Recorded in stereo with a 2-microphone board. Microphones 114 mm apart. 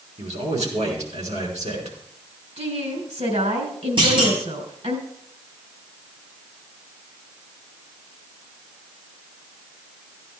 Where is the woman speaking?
70° right (ahead or behind), 3.5 m.